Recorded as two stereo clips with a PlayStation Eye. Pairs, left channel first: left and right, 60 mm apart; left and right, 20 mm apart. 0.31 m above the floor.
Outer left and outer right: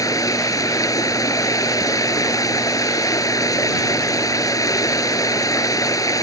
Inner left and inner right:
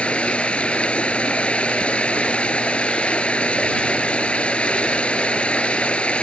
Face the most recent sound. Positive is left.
turn(degrees=75)  # may be behind; listen again after turning